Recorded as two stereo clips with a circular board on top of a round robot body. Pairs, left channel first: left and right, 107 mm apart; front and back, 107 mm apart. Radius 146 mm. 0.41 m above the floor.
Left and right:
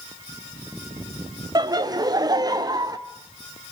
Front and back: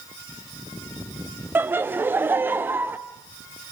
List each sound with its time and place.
1.6 s laughter: 120° right, 1.2 m